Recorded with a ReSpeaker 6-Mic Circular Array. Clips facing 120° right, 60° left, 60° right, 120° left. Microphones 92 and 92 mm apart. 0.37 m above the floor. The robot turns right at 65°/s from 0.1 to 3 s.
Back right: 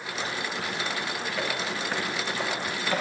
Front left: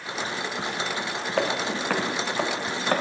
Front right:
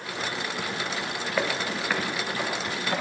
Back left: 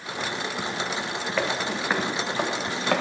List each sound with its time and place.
1.4 s footsteps: 25° left, 1.7 m; by 3.0 s 105° left, 2.5 m